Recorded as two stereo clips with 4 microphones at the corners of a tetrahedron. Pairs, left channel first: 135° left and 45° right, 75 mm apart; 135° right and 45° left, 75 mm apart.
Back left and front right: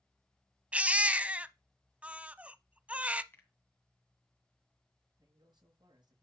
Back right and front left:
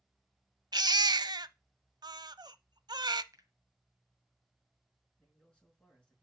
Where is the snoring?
No snoring in this recording.